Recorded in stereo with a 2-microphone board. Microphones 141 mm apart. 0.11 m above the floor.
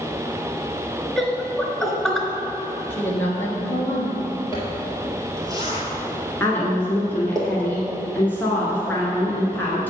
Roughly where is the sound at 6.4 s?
Centre.